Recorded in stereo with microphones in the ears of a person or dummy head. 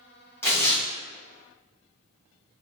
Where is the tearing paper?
15° left (ahead or behind), 1.2 m.